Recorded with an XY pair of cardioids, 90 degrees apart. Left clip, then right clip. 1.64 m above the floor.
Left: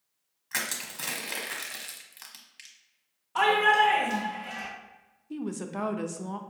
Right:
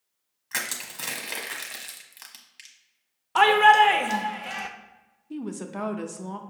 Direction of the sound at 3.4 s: 70° right.